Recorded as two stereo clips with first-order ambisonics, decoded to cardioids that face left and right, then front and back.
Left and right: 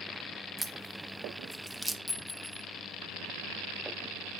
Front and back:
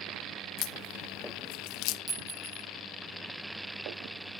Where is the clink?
150° left, 0.7 m.